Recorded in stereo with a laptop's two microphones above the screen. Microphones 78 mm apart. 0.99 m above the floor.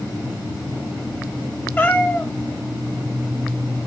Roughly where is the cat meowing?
Left.